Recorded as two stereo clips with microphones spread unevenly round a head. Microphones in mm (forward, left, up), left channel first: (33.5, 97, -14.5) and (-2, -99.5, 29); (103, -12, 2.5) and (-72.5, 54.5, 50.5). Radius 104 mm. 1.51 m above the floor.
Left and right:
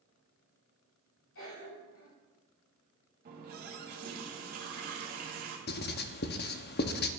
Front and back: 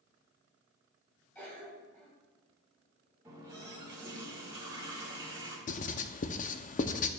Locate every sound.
1.4 s a cough: 60° left, 2.5 m
3.2 s a running tap: 130° right, 1.2 m
5.7 s writing: 35° left, 0.5 m